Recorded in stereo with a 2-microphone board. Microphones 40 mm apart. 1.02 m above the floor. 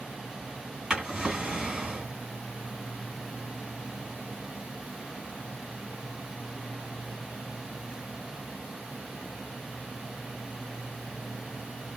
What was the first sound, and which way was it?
A drawer, 15° right (ahead or behind).